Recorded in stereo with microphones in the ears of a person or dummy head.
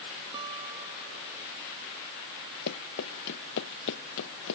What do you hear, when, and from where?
0.3 s a guitar: 25° right (ahead or behind)
2.7 s running footsteps: 60° left (ahead or behind); by 4.6 s 70° left (ahead or behind)